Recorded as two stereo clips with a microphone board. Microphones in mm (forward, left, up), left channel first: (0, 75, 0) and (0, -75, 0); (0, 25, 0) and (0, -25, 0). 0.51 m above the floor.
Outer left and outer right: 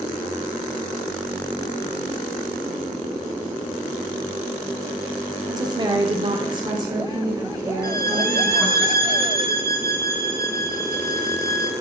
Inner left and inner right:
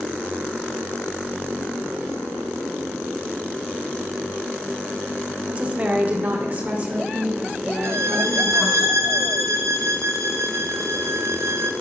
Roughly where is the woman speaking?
Right.